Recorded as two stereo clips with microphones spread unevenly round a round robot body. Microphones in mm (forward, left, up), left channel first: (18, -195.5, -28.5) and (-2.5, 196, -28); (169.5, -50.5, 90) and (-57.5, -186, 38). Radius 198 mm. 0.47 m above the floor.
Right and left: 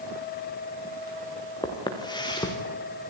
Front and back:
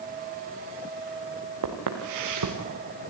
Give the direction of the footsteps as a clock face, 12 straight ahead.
6 o'clock.